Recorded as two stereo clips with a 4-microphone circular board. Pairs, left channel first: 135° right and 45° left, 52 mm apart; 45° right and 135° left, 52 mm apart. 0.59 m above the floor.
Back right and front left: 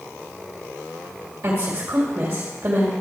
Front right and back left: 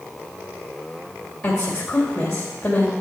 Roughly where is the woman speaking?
Ahead left.